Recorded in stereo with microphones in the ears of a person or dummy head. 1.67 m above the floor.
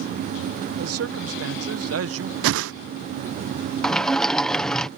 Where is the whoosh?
70° right (ahead or behind).